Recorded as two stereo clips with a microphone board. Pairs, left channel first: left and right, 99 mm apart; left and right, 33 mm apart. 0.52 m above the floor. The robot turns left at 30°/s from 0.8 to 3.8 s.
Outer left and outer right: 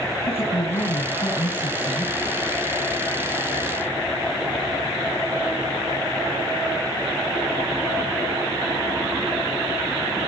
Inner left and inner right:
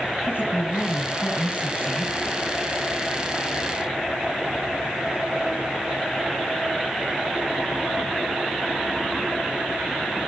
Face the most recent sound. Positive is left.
turn(degrees=0)